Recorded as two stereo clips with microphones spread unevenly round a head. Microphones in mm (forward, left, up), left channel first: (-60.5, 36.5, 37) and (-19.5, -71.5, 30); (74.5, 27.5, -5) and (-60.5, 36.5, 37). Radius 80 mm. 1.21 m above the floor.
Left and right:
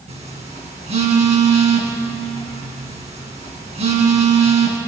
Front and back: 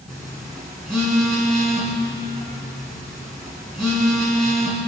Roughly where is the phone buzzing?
Right.